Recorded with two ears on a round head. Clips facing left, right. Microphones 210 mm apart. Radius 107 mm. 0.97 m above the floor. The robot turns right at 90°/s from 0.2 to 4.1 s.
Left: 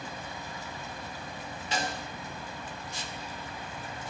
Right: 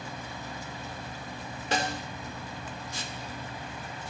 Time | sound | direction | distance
1.7 | a snare drum | 45° right (ahead or behind) | 3 m